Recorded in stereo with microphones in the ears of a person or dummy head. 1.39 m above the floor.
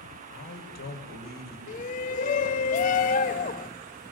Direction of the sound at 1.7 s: 35° left (ahead or behind).